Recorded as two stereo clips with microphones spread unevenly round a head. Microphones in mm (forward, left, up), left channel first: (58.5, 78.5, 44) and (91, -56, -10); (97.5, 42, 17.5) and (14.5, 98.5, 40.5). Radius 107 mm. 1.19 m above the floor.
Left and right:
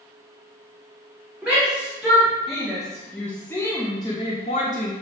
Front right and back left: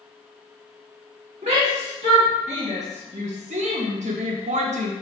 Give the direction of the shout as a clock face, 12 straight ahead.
5 o'clock.